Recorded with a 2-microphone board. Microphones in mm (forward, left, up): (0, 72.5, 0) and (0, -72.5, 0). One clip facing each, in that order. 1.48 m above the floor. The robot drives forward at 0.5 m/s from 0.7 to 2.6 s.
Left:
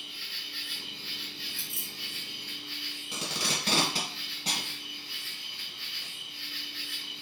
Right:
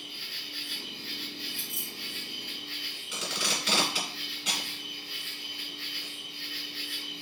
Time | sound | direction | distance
0.0 | an insect | 45° right (ahead or behind) | 2.5 m
1.6 | keys jangling | 75° right (ahead or behind) | 2.5 m
3.1 | tape being pulled | 40° left (ahead or behind) | 1.6 m